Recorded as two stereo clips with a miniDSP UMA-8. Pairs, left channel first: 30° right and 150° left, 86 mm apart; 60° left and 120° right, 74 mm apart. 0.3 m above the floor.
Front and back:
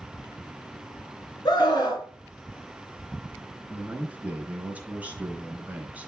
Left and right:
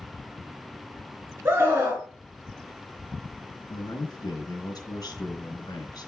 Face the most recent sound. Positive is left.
turn(degrees=75)